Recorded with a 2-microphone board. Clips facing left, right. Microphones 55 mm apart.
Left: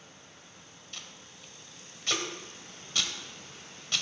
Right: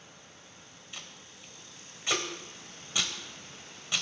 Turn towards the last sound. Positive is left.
turn(degrees=-10)  # may be behind; listen again after turning